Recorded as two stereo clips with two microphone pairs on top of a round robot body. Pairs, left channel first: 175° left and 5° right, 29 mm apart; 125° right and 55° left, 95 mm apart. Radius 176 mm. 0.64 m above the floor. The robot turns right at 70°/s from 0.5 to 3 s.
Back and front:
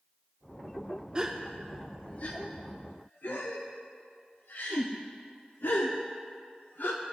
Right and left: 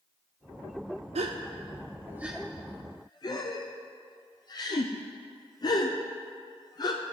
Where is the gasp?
55° left, 0.5 m; by 7.0 s 175° right, 0.5 m.